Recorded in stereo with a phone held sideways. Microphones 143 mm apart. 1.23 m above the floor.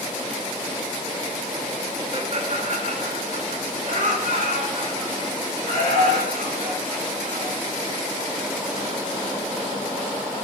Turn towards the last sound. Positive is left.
turn(degrees=-80)